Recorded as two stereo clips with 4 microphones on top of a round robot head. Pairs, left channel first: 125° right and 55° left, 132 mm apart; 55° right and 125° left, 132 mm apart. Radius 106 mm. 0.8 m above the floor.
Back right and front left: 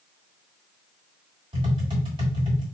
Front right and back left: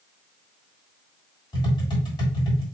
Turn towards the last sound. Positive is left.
turn(degrees=0)